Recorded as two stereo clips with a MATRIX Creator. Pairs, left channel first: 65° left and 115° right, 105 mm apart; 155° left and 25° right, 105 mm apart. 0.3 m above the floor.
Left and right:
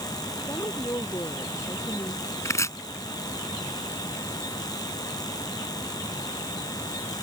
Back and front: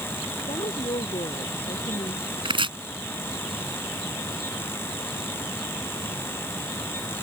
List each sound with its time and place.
0.5 s a woman speaking: 130° left
2.5 s chopping: 10° left